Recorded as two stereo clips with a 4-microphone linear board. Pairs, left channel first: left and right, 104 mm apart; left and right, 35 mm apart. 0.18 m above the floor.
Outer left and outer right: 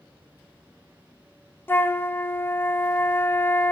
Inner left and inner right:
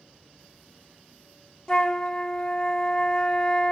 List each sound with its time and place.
1.7 s a flute: 20° left (ahead or behind), 0.5 m